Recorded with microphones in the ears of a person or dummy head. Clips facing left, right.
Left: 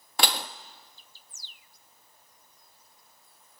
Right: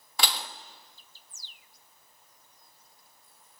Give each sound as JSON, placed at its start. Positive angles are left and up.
{"t": 0.2, "sound": "dishes clattering", "side_deg": 40, "distance_m": 1.2}